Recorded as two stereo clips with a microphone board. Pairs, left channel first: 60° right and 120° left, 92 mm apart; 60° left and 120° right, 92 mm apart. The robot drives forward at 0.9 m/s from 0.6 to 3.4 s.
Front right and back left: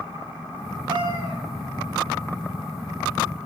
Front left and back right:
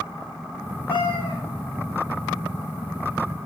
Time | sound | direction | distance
0.9 | a cat meowing | 85° left | 2.5 m